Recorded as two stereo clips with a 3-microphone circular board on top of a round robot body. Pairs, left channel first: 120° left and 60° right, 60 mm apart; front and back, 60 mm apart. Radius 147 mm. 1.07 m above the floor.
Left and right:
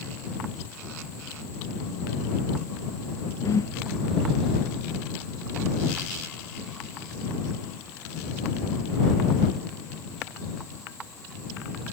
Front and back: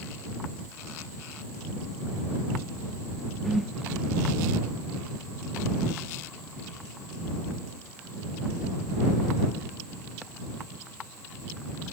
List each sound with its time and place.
3.4 s a whoosh: 90° left